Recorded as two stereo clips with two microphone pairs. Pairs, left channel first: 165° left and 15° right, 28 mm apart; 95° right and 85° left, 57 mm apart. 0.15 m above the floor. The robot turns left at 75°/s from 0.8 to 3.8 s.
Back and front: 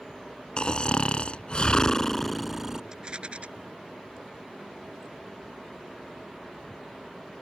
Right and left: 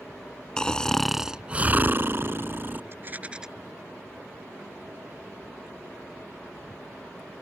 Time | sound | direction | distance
0.6 | snoring | 165° right | ?
2.9 | a rattle | 45° left | ?